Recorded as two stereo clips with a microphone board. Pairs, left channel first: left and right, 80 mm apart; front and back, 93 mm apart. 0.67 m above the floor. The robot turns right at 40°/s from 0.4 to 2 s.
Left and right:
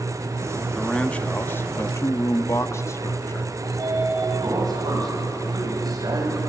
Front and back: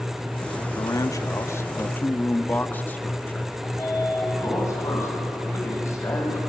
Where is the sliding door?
55° right, 4 m.